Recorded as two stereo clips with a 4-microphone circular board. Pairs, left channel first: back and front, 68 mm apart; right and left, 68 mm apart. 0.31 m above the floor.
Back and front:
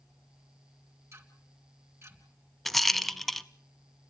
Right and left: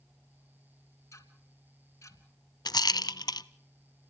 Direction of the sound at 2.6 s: 95° right.